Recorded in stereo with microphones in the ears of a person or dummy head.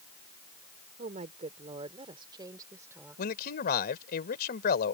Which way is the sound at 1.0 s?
35° right (ahead or behind).